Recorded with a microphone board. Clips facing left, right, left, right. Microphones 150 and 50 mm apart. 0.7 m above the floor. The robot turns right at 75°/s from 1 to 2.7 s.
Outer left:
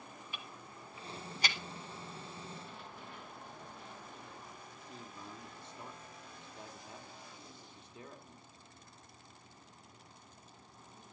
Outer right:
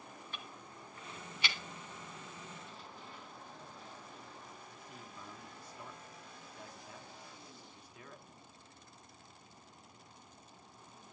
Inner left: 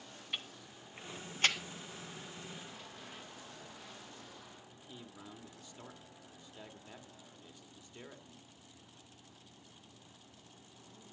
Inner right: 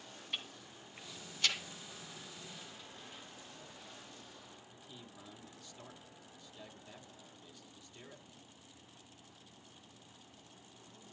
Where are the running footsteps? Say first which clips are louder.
Outer left 2 dB, inner left 2 dB; 55° left (ahead or behind), 5 m; by 4.6 s 65° left (ahead or behind), 6.5 m.